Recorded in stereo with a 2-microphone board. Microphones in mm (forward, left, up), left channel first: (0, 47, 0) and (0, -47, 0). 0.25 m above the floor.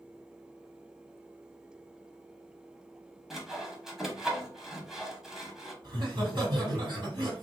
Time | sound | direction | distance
3.3 | sawing | 5° right (ahead or behind) | 0.6 m
5.8 | laughter | 45° right (ahead or behind) | 1.7 m